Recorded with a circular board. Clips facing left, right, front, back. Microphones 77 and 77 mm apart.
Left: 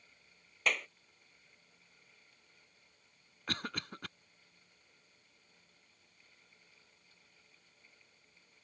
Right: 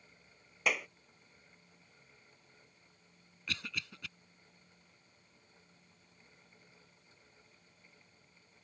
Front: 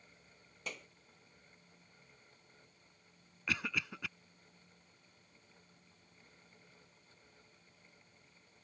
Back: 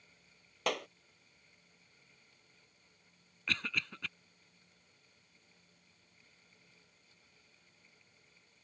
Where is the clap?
170° right.